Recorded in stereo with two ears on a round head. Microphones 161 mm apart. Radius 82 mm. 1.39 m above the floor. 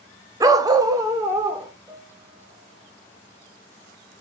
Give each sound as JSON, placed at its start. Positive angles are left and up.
{"t": 0.4, "sound": "a dog barking", "side_deg": -20, "distance_m": 0.8}
{"t": 1.9, "sound": "a piano", "side_deg": -25, "distance_m": 3.5}